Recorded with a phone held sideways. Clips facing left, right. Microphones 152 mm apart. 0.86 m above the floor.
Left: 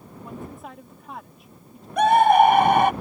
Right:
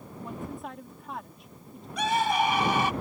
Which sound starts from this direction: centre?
A woman speaking, at 0.2 s.